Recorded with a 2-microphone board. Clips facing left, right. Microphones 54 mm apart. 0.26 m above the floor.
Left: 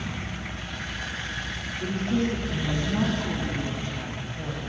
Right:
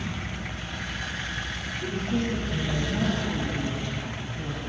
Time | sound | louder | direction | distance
1.8 | a woman speaking | left 3 dB | 65° left (ahead or behind) | 3 m